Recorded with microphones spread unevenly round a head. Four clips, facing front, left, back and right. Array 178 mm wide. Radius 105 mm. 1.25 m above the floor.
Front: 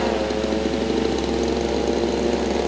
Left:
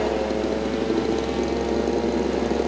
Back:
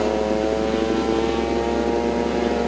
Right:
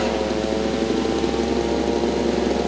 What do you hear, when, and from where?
Only background noise.